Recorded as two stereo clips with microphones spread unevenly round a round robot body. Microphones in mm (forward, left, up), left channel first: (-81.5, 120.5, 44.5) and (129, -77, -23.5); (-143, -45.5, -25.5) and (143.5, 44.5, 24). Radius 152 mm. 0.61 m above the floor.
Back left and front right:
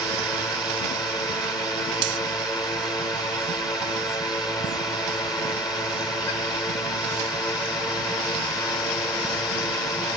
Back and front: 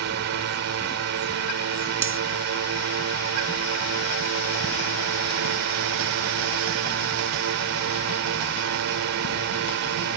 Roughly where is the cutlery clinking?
Ahead right.